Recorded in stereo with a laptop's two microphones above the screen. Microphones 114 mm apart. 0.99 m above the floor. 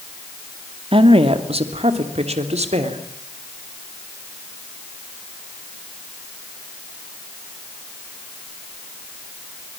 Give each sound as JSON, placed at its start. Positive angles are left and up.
{"t": 0.9, "sound": "a woman speaking", "side_deg": -50, "distance_m": 2.5}